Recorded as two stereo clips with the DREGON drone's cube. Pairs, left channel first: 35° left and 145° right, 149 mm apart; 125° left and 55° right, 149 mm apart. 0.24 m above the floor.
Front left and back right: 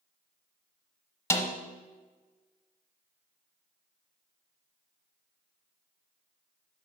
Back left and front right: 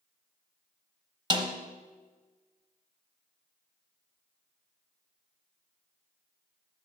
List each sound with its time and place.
1.3 s a snare drum: 25° right, 0.8 m